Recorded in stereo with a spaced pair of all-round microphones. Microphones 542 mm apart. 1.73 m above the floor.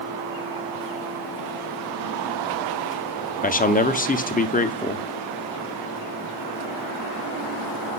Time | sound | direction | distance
3.4 | a man speaking | 15° left (ahead or behind) | 0.6 m